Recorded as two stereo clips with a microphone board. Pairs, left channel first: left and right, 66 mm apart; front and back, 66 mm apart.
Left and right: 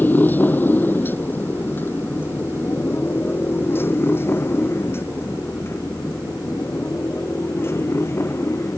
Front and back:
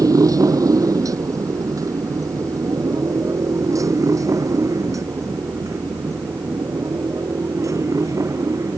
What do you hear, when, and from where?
0.0 s a motorcycle: 155° left; by 8.8 s 140° left